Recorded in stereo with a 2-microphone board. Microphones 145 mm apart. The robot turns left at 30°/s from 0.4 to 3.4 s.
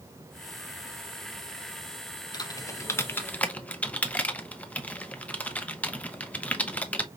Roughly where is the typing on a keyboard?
Left.